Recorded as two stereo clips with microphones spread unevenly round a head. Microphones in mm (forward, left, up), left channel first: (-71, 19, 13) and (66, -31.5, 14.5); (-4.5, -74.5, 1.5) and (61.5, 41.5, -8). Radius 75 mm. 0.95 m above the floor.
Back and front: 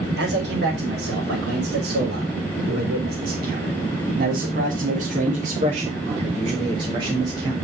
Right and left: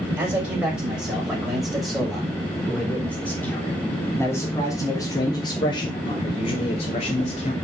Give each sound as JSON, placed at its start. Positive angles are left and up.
{"t": 0.2, "sound": "a man speaking", "azimuth_deg": -15, "distance_m": 5.5}